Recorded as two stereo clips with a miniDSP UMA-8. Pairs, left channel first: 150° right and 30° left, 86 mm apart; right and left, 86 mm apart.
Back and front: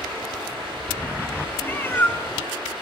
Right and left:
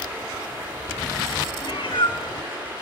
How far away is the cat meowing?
About 0.7 m.